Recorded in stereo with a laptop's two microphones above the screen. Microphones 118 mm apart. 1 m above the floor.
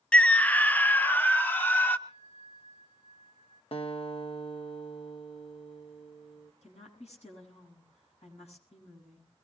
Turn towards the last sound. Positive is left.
turn(degrees=80)